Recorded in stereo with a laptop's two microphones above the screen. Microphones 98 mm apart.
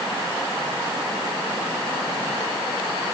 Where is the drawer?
No drawer in this recording.